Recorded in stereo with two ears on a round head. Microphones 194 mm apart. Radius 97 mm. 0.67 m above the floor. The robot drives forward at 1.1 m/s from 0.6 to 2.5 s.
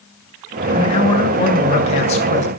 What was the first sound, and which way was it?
A man speaking, 25° left (ahead or behind).